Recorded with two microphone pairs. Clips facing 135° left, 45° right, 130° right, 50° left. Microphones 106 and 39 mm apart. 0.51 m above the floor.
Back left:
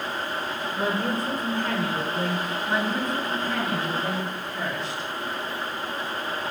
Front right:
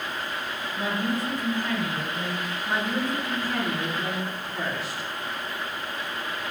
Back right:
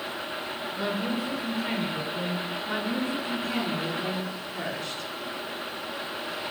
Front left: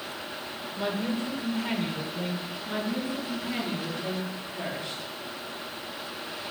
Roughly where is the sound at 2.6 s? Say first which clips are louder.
Even, even; behind right.